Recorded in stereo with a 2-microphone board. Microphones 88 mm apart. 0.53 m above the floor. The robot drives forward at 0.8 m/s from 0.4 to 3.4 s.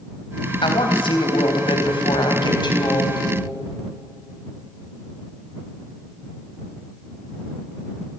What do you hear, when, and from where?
0.6 s a woman speaking: 70° left (ahead or behind), 4 m; by 3.2 s 55° left (ahead or behind), 4.5 m